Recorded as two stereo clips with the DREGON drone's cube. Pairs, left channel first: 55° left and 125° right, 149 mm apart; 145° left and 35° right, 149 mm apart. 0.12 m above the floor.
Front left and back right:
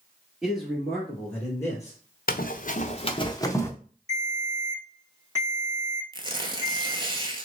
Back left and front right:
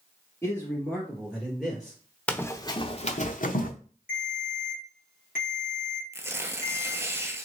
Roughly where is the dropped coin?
I don't hear a dropped coin.